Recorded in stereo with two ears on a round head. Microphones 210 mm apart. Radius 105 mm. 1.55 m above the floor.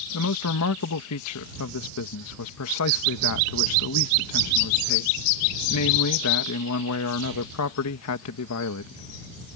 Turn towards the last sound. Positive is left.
turn(degrees=70)  # may be behind; listen again after turning